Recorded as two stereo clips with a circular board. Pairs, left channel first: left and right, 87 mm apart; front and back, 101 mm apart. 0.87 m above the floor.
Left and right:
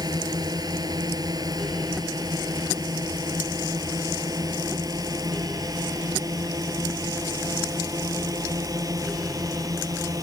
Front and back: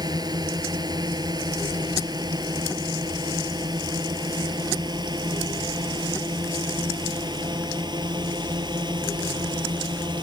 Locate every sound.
0.0 s a drone: 130° right; by 10.2 s 135° right